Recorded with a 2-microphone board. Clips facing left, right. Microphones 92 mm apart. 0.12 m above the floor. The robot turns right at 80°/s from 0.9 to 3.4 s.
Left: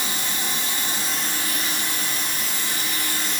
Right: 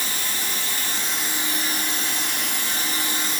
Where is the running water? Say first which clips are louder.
Left 2 dB; 160° left, 1.9 m; by 3.4 s straight ahead, 1.9 m.